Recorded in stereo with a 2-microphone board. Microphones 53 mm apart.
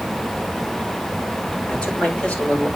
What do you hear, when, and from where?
1.7 s a man speaking: 20° left (ahead or behind), 4 m